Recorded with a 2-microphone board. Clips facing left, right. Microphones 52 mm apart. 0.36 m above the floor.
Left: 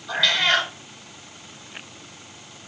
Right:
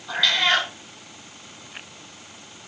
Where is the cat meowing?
Centre (ahead or behind), 1.6 m.